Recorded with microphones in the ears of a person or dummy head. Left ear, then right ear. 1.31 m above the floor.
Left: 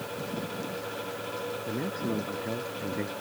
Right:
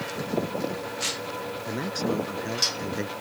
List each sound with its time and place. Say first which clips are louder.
1.6 s a man speaking: right 4 dB; 80° right; by 3.1 s 75° right (ahead or behind)